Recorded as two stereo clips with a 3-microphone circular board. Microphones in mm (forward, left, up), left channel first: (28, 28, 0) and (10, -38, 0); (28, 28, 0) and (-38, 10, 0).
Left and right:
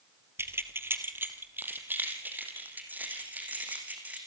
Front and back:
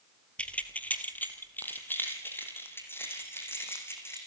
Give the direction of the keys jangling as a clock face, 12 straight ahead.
2 o'clock.